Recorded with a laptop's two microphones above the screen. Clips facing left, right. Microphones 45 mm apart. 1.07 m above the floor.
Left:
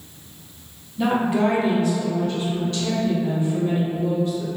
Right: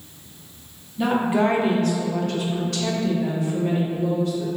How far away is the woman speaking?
About 0.5 m.